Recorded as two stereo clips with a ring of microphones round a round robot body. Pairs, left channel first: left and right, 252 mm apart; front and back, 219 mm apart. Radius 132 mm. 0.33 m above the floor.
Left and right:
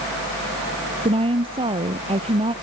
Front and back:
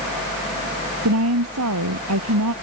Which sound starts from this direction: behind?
A woman speaking, at 1.0 s.